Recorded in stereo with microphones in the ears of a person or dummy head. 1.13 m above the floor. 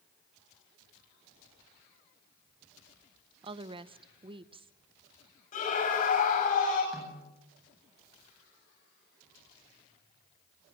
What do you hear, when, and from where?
3.4 s a woman speaking: 25° right (ahead or behind), 0.8 m
5.5 s a scream: 45° left (ahead or behind), 9 m
6.9 s a snare drum: centre (ahead or behind), 8.5 m